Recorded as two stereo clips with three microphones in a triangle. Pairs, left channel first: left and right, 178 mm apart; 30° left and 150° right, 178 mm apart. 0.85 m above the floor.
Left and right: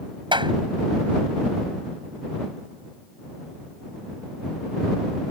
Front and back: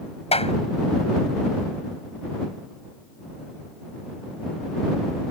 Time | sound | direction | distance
0.3 | a clap | 25° right | ?